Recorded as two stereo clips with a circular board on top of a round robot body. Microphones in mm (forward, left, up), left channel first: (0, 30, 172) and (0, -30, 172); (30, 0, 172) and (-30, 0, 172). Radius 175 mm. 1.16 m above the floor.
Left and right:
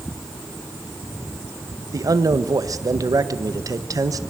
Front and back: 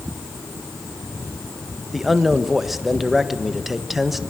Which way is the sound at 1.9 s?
90° right.